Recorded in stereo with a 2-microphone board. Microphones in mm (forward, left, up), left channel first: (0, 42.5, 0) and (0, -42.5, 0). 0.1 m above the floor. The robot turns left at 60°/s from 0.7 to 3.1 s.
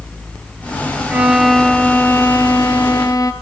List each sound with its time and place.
1.1 s a violin: 160° right, 1.6 m; by 3.3 s 80° left, 1.6 m